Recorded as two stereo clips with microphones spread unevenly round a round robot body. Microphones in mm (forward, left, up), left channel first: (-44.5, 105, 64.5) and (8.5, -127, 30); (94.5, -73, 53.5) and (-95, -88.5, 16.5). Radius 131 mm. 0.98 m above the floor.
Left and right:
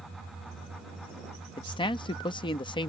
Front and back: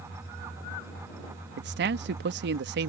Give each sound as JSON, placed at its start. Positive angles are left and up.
{"t": 1.6, "sound": "a man speaking", "azimuth_deg": 175}